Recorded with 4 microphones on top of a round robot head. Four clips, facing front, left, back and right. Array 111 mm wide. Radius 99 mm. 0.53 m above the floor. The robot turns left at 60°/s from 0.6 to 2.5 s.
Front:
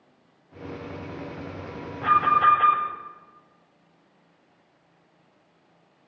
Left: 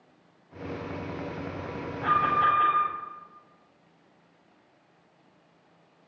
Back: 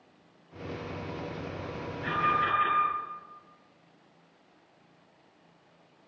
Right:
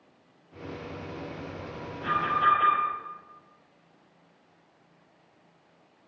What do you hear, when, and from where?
2.0 s an alarm: 20° left, 5 m; by 2.8 s 10° right, 5 m